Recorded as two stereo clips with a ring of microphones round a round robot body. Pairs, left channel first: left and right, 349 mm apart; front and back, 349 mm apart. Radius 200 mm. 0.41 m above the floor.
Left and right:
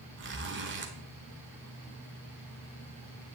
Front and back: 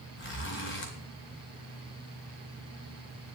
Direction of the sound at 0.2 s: 45° right.